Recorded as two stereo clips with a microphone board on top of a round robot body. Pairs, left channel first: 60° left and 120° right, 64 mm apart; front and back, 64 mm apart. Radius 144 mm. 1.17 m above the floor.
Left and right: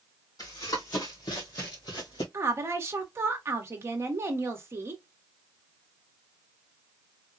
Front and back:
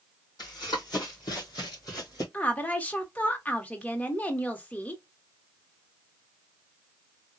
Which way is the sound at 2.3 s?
70° right.